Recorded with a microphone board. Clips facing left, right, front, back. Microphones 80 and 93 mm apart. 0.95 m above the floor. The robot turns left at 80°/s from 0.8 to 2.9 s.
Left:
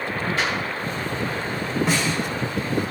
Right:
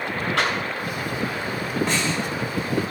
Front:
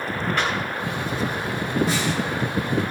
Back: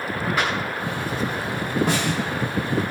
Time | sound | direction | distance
0.4 | a clap | 95° right | 5.5 m
1.9 | a snare drum | straight behind | 5 m